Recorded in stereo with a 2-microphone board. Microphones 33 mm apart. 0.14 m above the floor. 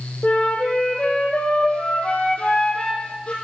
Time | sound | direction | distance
0.2 | a flute | 40° left (ahead or behind) | 1.5 m